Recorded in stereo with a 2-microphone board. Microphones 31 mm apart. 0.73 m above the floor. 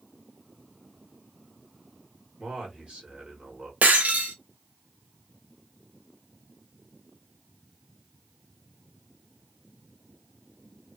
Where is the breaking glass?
70° right (ahead or behind), 0.8 m.